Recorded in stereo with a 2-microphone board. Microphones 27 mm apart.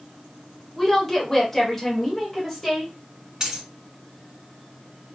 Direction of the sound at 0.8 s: 10° left (ahead or behind).